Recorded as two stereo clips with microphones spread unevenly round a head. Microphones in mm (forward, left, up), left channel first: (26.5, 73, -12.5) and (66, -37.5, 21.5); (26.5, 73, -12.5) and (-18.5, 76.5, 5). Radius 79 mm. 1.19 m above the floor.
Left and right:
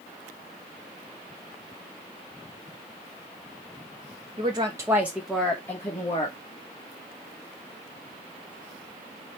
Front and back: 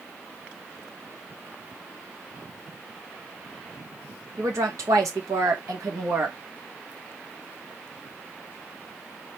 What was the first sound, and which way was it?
A woman speaking, 130° right.